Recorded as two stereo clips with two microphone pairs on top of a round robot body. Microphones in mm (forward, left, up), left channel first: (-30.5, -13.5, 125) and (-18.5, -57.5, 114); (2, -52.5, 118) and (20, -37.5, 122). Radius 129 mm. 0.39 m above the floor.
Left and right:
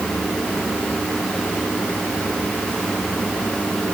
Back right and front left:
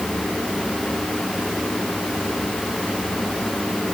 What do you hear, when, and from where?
Only background noise.